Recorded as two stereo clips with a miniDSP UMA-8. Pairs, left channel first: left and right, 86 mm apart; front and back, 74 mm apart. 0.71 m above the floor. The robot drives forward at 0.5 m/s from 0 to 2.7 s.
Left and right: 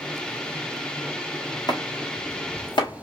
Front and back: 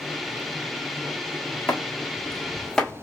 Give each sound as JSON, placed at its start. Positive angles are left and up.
{"t": 1.7, "sound": "chopping", "azimuth_deg": 60, "distance_m": 1.4}